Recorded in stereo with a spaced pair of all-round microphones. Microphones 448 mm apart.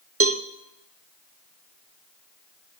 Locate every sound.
0.2 s a cowbell: 30° right (ahead or behind), 0.6 m